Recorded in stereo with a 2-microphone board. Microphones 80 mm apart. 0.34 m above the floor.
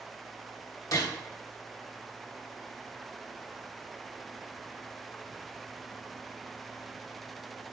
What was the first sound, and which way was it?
A gunshot, 45° left (ahead or behind).